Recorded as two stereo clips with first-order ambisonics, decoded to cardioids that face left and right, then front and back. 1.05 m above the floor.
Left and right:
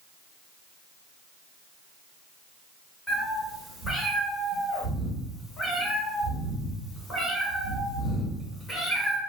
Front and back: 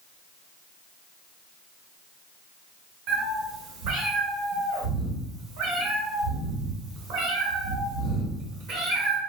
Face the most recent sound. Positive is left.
turn(degrees=170)